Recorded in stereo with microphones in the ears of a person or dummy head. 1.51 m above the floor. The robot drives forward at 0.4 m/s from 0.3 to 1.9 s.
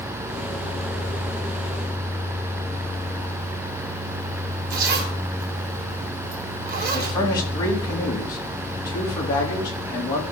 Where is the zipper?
50° right (ahead or behind), 3 m.